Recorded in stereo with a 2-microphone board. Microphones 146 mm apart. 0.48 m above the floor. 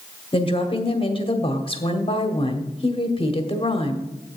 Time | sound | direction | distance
0.3 | a woman speaking | 40° left (ahead or behind) | 1.2 m